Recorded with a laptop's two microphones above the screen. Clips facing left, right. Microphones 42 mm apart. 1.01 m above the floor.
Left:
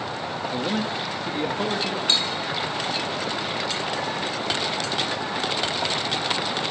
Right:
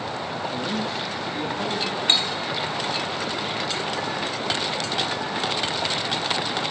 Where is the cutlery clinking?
40° right (ahead or behind), 3 m.